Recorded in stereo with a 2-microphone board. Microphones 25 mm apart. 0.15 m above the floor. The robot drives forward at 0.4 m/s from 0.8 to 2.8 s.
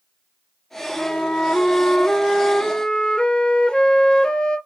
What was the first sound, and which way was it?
A flute, 55° left (ahead or behind).